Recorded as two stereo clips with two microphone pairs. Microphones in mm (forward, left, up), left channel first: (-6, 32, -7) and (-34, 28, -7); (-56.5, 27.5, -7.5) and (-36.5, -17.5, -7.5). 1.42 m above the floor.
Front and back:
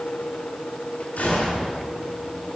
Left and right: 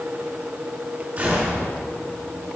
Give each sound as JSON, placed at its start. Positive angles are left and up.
{"t": 1.2, "sound": "a gunshot", "azimuth_deg": -10, "distance_m": 4.5}